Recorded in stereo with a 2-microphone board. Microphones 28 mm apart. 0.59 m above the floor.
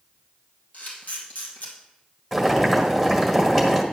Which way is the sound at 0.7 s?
80° left.